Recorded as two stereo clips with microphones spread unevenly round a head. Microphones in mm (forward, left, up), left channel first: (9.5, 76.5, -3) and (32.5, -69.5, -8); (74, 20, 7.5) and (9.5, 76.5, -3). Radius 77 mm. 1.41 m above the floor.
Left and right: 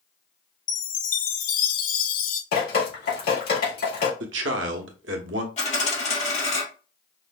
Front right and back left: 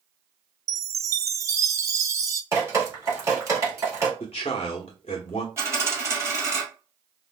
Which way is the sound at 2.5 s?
85° left.